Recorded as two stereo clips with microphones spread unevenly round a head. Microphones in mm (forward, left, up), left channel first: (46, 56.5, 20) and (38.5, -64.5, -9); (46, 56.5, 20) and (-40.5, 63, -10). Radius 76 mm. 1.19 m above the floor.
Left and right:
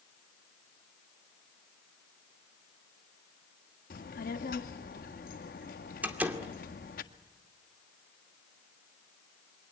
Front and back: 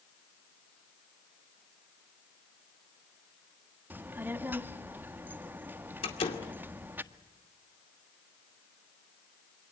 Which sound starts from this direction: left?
A child speaking, at 3.9 s.